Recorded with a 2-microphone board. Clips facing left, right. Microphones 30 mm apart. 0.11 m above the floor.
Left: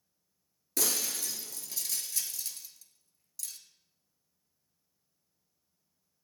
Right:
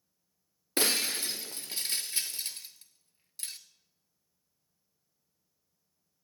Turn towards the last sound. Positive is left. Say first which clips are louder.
# right 4 dB
turn(degrees=-40)  # may be behind; listen again after turning